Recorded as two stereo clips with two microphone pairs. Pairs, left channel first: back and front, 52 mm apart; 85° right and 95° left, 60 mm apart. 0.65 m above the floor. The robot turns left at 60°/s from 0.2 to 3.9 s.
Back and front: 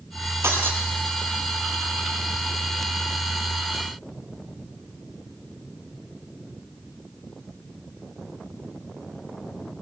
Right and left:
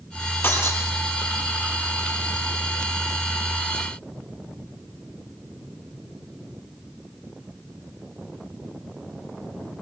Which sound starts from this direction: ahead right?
Breaking glass, at 0.4 s.